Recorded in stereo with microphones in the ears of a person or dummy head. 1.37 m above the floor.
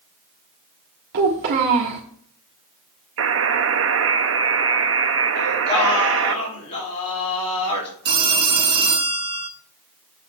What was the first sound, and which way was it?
A child speaking, 60° right (ahead or behind).